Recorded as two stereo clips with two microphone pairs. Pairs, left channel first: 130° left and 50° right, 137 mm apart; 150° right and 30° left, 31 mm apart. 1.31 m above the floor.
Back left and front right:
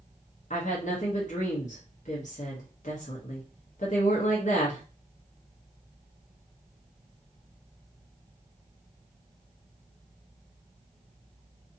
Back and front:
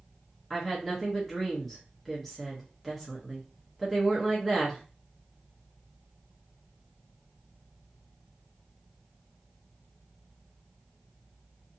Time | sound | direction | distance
0.5 | a woman speaking | 120° left | 0.8 m